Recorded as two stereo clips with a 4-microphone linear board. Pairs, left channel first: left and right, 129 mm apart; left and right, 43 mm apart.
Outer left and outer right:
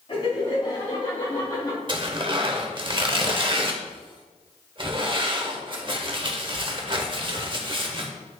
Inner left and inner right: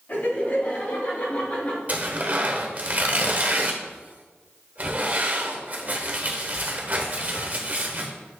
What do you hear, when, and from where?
0.1 s laughter: 45° left (ahead or behind), 2.5 m; by 1.8 s 30° left (ahead or behind), 3 m
1.9 s tearing paper: 40° right (ahead or behind), 0.9 m